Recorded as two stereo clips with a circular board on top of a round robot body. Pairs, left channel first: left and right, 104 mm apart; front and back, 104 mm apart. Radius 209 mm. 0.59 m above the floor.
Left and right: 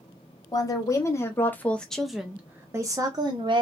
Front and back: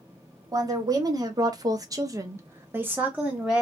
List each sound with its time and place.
0.5 s a woman speaking: 135° left, 1.3 m; by 3.6 s 100° right, 1.1 m